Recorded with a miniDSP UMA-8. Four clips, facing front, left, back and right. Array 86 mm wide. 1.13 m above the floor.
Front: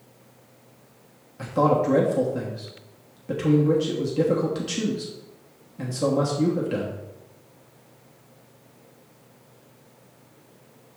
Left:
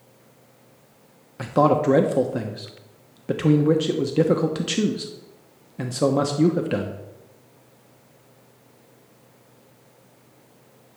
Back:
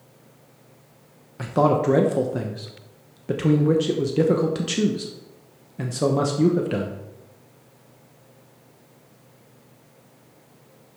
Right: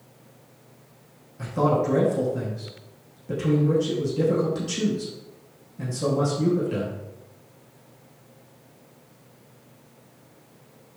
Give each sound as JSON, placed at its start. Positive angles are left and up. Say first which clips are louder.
{"t": 1.4, "sound": "a man speaking", "louder": "left 4 dB, back 1 dB", "azimuth_deg": 115, "distance_m": 0.9}